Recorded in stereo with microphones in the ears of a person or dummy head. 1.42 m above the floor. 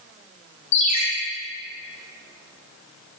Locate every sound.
0.7 s a ringtone: 40° left (ahead or behind), 0.9 m